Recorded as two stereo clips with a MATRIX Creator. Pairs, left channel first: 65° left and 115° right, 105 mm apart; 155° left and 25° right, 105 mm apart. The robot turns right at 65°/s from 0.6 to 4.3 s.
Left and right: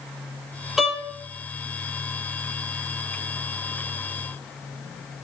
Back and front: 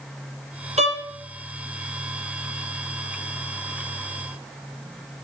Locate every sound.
0.8 s a violin: 25° right, 3 m; by 1.0 s 10° right, 3 m